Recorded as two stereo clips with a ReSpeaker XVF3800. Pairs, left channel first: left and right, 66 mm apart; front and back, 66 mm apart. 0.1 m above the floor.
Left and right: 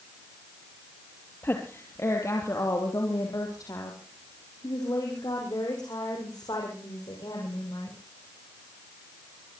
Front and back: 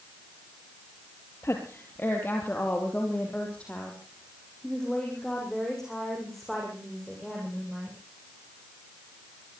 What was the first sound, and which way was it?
A woman speaking, 40° left.